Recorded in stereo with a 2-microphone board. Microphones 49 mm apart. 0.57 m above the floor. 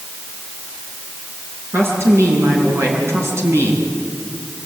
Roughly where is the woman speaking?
Right.